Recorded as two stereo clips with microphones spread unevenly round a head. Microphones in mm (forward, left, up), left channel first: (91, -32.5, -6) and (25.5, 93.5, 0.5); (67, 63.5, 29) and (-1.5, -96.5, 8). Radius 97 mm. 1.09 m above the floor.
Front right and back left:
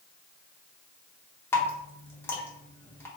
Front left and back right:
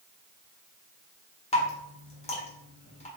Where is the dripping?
10° left, 1.0 m.